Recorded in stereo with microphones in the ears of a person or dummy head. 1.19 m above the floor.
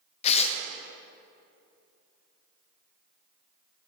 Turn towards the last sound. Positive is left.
turn(degrees=40)  # may be behind; listen again after turning